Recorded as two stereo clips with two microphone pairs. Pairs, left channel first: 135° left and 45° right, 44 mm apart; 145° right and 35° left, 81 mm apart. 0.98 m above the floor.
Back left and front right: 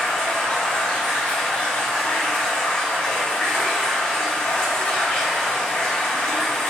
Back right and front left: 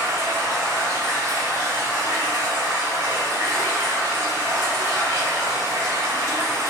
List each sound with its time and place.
0.0 s running water: 80° left, 0.8 m